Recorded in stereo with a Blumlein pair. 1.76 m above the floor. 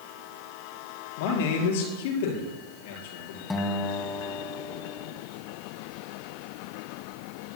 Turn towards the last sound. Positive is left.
turn(degrees=15)